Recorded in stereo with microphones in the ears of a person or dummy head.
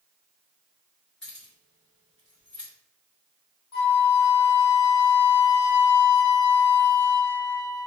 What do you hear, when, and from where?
1.2 s keys jangling: 5° left (ahead or behind), 0.9 m
3.7 s a flute: 75° left (ahead or behind), 1.1 m